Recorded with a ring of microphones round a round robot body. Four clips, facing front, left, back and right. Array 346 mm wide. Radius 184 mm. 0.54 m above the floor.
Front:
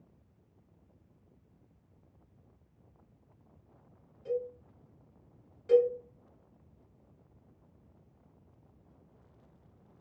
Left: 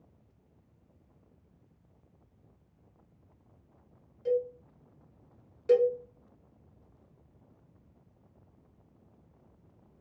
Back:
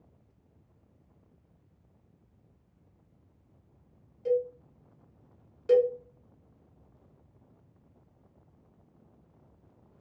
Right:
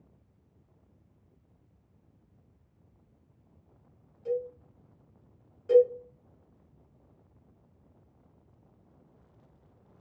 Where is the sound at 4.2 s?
155° left, 2 m.